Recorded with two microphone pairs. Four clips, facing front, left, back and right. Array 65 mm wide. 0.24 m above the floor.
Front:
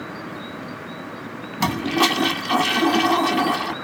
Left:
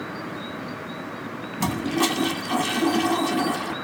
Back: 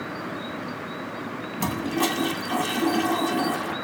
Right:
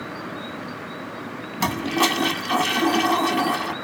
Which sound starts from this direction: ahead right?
A toilet flushing, at 1.6 s.